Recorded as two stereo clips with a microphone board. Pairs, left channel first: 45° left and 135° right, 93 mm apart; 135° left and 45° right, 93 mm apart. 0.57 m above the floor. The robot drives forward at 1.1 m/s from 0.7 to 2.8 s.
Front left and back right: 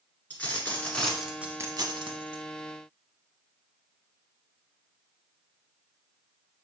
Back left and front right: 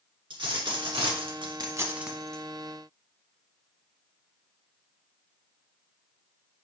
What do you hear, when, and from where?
0.3 s a dropped coin: 25° right, 1.3 m; by 2.4 s 145° right, 1.0 m